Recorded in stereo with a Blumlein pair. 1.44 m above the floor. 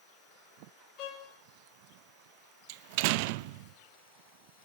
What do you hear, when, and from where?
1.0 s a violin: 35° left, 9.5 m
2.7 s a door slam: 45° right, 0.8 m